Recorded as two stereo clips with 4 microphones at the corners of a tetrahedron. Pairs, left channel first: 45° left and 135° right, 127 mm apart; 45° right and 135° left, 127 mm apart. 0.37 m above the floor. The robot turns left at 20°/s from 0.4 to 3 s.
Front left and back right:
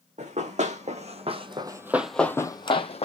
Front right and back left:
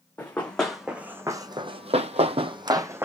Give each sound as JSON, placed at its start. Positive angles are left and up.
{"t": 0.2, "sound": "running footsteps", "azimuth_deg": -120, "distance_m": 1.2}